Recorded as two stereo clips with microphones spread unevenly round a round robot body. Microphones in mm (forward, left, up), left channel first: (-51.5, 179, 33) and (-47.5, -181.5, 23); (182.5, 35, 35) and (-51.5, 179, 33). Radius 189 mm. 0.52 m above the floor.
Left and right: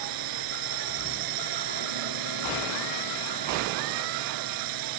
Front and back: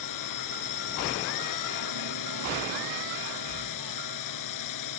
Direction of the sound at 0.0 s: 50° right.